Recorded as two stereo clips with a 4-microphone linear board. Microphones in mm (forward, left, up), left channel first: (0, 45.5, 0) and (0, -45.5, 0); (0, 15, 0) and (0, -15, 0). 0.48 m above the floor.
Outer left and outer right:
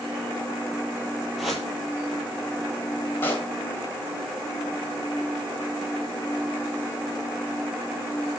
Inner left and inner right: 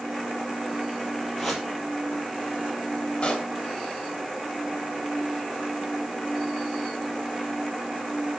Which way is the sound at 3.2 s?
25° left (ahead or behind).